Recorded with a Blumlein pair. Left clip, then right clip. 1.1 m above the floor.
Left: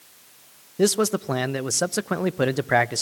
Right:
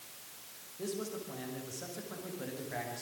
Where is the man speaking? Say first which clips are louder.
Left 18 dB; 40° left, 0.7 m.